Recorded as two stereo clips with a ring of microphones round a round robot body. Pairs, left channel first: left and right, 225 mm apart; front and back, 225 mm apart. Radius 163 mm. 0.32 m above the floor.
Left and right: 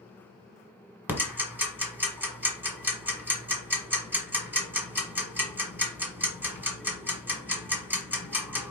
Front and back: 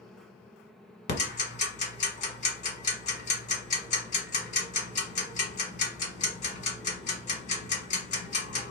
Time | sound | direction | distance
1.1 | ticking | 15° right | 1.4 m